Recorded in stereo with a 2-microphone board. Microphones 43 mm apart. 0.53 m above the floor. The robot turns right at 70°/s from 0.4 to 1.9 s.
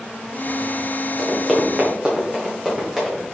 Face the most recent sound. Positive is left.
turn(degrees=-5)  # may be behind; listen again after turning